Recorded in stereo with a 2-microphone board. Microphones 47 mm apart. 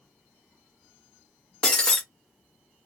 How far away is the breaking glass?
About 0.8 m.